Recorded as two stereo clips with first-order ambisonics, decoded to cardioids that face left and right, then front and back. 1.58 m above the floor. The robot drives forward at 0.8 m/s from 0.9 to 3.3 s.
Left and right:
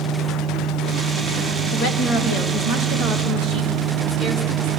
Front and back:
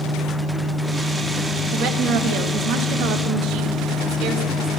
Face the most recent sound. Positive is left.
turn(degrees=155)